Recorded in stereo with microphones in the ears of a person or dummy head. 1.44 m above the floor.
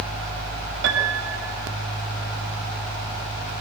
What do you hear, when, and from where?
0.8 s a piano: 80° right, 6 m